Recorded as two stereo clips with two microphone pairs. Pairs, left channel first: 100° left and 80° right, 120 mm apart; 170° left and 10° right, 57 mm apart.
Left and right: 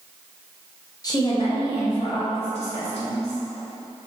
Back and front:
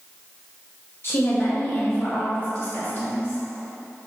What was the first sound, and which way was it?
A woman speaking, 145° left.